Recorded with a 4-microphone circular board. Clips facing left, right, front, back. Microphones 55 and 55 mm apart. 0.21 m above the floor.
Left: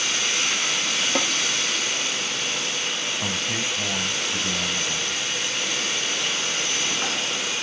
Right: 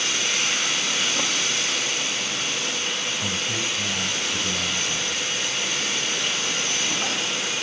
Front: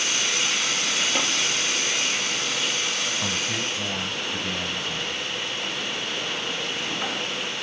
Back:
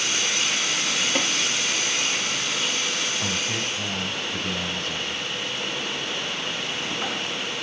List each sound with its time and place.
1.1 s tapping: 95° left, 3 m
3.2 s a man speaking: 70° left, 1.0 m